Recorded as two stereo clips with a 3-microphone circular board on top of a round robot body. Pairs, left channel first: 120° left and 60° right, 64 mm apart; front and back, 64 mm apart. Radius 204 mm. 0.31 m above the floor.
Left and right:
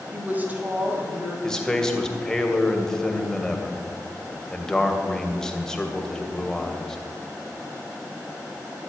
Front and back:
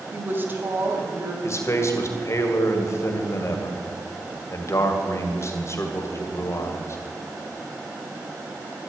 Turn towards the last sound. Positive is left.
turn(degrees=40)